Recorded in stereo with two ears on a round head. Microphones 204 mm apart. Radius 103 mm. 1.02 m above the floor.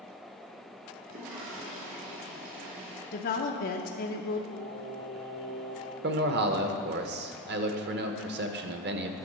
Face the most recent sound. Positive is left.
turn(degrees=-50)  # may be behind; listen again after turning